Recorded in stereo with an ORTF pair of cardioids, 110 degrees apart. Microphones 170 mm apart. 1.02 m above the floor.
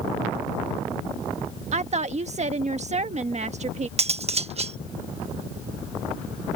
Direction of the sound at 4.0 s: 40° right.